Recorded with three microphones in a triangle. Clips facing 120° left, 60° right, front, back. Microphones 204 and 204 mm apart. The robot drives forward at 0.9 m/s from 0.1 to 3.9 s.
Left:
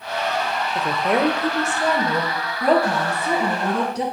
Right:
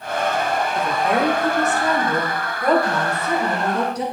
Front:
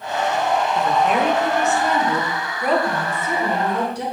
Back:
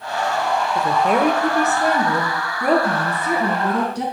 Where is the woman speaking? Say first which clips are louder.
Left 2 dB, back 3 dB; 170° left, 0.8 m; by 4.0 s straight behind, 3 m.